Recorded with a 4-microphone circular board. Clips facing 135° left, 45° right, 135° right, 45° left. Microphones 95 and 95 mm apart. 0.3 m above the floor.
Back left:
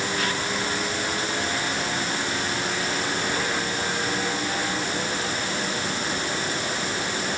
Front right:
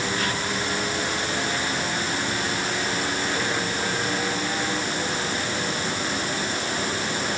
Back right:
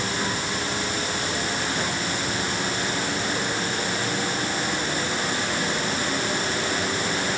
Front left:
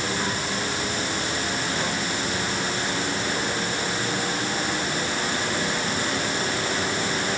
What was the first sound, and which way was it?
Only background noise.